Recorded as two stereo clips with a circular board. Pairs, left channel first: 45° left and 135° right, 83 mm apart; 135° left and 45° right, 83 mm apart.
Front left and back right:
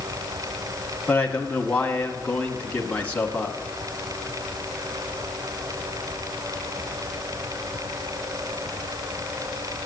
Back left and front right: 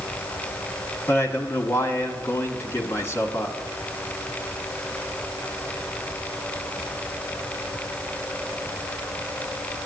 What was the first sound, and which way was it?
A man speaking, 110° left.